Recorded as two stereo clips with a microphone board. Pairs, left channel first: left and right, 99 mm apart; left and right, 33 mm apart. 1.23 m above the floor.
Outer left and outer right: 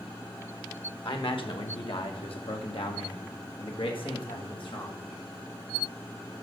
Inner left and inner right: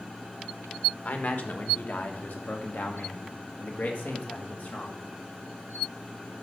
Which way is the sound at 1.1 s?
60° left (ahead or behind).